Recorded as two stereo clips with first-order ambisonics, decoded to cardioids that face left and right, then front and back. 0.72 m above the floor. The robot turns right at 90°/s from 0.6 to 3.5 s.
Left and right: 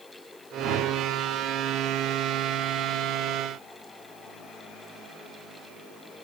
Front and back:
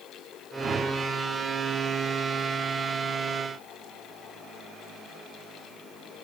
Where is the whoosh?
130° right, 1.5 m; by 1.1 s 90° right, 1.5 m.